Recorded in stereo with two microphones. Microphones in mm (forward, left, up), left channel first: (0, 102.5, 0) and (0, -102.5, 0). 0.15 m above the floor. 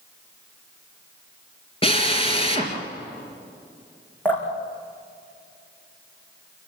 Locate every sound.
1.8 s a drill: 25° left (ahead or behind), 3.5 m
4.2 s dripping: 10° left (ahead or behind), 5 m